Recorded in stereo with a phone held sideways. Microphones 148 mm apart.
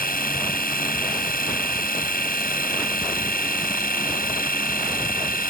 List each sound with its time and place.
0.0 s a machine running: 85° left